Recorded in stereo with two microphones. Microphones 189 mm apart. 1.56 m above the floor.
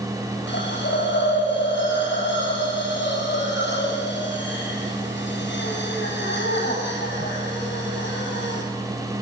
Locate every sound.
0.5 s a hiss: 80° left, 7 m